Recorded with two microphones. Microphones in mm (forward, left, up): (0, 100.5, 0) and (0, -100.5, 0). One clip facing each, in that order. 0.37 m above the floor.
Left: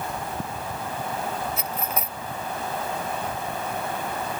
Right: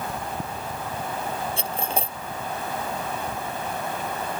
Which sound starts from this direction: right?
Cutlery clinking, at 1.6 s.